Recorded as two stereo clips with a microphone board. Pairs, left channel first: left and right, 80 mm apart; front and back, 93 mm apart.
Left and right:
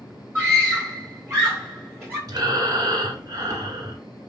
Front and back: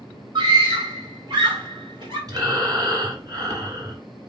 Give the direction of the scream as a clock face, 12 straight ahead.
5 o'clock.